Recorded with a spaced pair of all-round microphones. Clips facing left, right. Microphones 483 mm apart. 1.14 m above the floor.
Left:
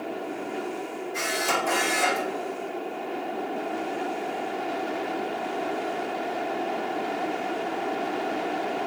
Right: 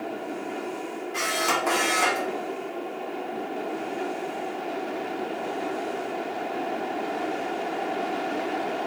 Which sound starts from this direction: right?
A camera shutter, at 1.1 s.